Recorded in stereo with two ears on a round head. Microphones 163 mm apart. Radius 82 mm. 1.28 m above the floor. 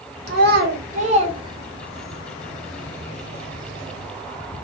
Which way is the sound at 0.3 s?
60° right (ahead or behind).